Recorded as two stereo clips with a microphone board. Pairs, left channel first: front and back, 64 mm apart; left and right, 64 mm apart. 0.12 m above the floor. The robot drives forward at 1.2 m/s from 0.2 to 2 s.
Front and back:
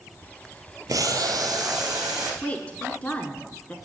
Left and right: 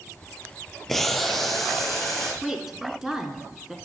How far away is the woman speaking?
About 1.1 m.